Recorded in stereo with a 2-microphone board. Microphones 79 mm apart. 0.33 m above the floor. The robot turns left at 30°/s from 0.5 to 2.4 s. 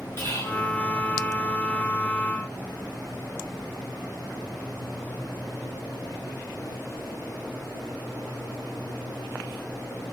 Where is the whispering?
35° left (ahead or behind), 1.3 m; by 0.6 s 40° left (ahead or behind), 1.3 m.